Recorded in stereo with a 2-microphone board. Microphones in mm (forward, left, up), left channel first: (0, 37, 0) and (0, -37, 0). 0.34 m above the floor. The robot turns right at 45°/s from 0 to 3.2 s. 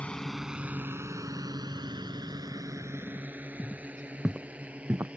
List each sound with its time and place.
0.0 s a drone: 15° left (ahead or behind); by 5.2 s 15° right (ahead or behind)
3.6 s footsteps: 20° left (ahead or behind); by 5.1 s 35° right (ahead or behind)